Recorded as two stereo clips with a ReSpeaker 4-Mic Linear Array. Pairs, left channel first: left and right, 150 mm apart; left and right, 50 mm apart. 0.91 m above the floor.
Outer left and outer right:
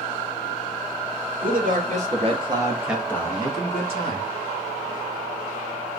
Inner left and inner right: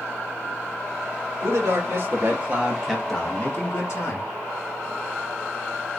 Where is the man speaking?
65° right (ahead or behind), 2 m; by 4.3 s 55° left (ahead or behind), 1.9 m.